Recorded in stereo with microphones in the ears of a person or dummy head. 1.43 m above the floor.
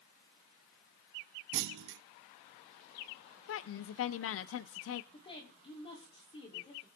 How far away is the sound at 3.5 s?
About 0.6 m.